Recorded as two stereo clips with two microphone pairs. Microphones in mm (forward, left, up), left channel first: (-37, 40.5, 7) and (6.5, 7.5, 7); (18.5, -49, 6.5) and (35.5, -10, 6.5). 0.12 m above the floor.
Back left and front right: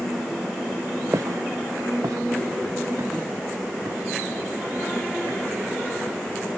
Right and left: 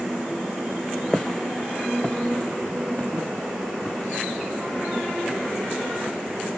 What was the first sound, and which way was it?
Footsteps, 35° right.